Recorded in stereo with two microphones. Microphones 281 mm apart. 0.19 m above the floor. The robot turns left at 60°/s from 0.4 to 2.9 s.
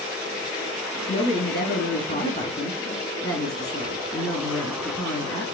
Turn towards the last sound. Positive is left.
turn(degrees=20)